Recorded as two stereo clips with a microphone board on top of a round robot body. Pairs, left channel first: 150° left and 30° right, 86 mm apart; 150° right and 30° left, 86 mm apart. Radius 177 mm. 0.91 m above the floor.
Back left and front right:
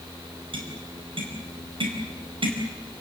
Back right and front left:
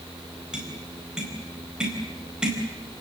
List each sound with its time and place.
0.5 s tapping: 50° right, 4.5 m